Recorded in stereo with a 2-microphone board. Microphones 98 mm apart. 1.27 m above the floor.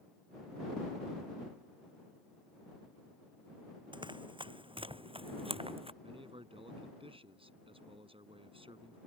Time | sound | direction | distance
3.9 | running footsteps | 55° right (ahead or behind) | ?
6.0 | a man speaking | 70° right (ahead or behind) | ?